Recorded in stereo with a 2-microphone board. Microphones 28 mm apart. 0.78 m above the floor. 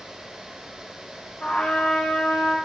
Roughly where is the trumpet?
Left.